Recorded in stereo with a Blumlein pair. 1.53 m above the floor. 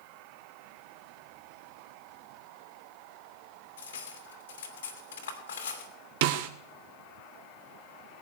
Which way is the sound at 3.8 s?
60° left.